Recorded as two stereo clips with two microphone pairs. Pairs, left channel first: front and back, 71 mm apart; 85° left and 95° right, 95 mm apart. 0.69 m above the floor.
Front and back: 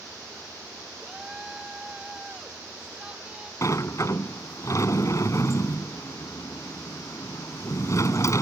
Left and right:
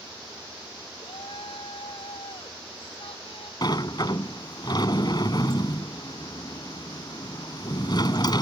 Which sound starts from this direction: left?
A shout, at 1.0 s.